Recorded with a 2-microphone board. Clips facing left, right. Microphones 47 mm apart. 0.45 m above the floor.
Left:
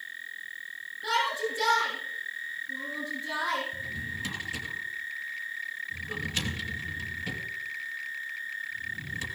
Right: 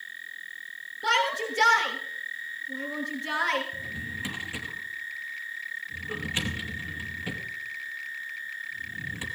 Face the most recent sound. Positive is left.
turn(degrees=-25)  # may be behind; listen again after turning